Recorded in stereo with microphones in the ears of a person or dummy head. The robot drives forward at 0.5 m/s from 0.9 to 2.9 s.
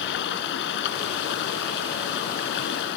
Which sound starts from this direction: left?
Running water, at 0.0 s.